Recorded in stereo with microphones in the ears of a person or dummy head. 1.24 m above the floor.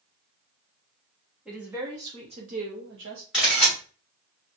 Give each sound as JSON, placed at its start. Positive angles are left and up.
{"t": 1.4, "sound": "a woman speaking", "side_deg": -5, "distance_m": 1.3}
{"t": 3.3, "sound": "a camera shutter", "side_deg": -5, "distance_m": 2.5}